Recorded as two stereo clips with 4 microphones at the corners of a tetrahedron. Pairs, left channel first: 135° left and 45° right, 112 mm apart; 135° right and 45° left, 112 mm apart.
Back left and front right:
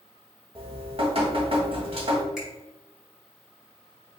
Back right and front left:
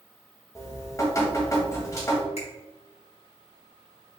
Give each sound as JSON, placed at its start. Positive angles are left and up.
{"t": 0.6, "sound": "dripping", "azimuth_deg": -75, "distance_m": 1.4}
{"t": 2.4, "sound": "a finger snap", "azimuth_deg": -130, "distance_m": 2.0}